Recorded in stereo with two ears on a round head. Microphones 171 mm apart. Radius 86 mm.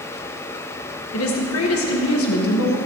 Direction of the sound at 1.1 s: 80° left.